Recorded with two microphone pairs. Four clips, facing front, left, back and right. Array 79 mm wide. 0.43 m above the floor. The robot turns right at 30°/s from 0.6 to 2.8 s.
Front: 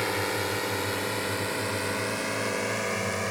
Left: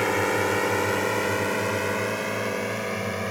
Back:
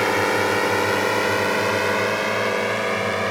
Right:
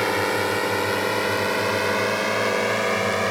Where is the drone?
165° right; by 3.3 s 130° right.